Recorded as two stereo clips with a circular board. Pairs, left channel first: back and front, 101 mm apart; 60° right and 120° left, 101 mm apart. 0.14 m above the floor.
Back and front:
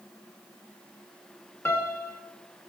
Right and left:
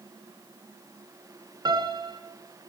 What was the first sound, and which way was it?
A piano, 125° left.